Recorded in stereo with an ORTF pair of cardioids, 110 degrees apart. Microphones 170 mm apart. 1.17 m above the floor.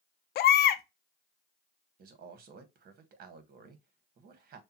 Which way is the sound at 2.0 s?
60° right.